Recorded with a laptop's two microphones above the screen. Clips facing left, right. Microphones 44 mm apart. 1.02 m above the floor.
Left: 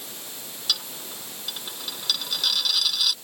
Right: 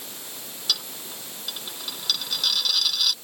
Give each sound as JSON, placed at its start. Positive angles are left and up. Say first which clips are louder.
{"t": 0.7, "sound": "a dropped coin", "louder": "even", "side_deg": 5}